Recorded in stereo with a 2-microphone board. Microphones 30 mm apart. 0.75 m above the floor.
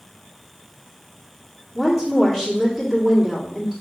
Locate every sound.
1.8 s a woman speaking: 20° right (ahead or behind), 1.8 m